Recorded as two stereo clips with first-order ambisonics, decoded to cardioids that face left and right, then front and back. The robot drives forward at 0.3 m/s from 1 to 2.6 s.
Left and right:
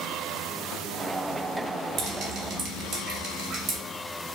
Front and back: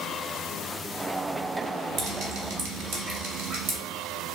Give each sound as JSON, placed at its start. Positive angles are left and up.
{"t": 2.0, "sound": "dripping", "azimuth_deg": -135, "distance_m": 0.7}